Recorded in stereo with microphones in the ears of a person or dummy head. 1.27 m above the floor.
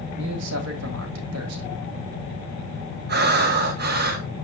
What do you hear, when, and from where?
0.2 s a man speaking: 85° right, 2.5 m
3.1 s breathing: 55° right (ahead or behind), 1.3 m